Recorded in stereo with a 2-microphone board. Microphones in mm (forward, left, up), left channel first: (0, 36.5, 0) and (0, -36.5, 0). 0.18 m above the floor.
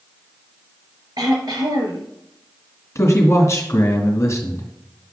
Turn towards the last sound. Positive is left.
turn(degrees=40)  # may be behind; listen again after turning